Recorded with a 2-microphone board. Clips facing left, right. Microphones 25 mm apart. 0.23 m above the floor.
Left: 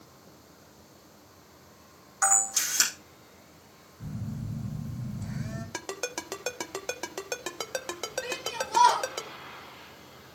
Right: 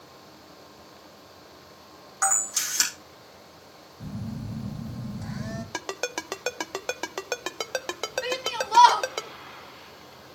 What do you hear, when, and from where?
2.2 s a camera shutter: 10° right (ahead or behind), 4 m
4.0 s a phone buzzing: 80° right, 3 m
5.7 s a ringtone: 20° right (ahead or behind), 0.6 m
8.2 s a shout: 45° right (ahead or behind), 1.5 m